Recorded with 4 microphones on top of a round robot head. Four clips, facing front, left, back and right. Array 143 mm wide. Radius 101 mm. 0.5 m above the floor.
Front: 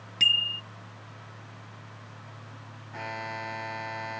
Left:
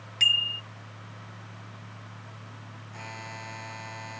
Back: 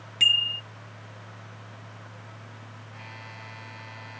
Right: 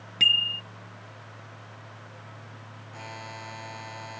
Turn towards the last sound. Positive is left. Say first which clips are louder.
# right 1 dB, front 12 dB
turn(degrees=-10)